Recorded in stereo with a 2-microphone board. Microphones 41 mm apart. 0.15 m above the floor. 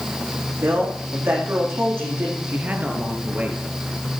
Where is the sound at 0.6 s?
70° right (ahead or behind), 9 m.